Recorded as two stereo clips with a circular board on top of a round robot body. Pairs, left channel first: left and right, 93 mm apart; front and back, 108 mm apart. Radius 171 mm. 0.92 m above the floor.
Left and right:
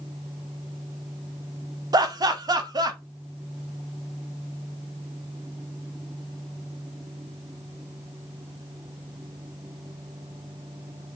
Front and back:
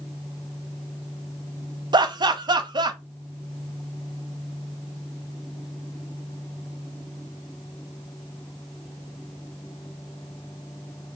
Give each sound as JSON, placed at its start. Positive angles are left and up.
{"t": 1.9, "sound": "laughter", "azimuth_deg": -135, "distance_m": 0.7}